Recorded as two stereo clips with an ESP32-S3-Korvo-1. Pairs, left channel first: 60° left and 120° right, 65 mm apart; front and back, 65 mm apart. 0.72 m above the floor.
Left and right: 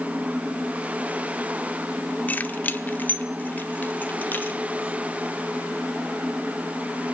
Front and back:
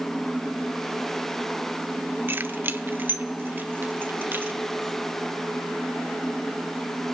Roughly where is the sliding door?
I don't hear a sliding door.